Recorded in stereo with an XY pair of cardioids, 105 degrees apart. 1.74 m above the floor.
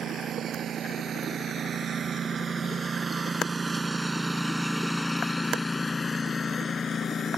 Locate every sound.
0.0 s a lawn mower: 65° right; by 7.4 s 45° left